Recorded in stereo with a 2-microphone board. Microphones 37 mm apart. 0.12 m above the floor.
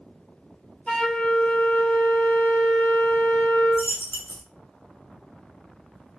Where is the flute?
35° left (ahead or behind), 0.8 m.